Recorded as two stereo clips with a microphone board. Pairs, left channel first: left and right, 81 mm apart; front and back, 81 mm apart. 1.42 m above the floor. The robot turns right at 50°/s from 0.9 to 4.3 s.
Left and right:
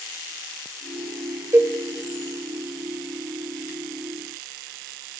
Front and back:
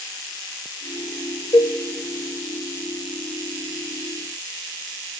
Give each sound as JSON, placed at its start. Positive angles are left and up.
{"t": 1.5, "sound": "a cowbell", "azimuth_deg": -35, "distance_m": 0.8}